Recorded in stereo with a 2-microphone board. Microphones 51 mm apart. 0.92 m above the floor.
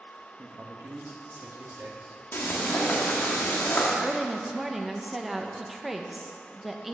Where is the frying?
45° left (ahead or behind), 1.6 m.